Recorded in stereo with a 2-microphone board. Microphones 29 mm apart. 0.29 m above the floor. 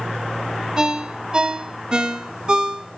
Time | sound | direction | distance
0.8 | a ringtone | 25° right (ahead or behind) | 1.2 m